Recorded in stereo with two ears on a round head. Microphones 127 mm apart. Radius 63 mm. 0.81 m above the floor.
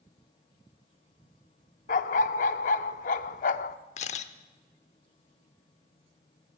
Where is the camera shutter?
50° left (ahead or behind), 0.8 m.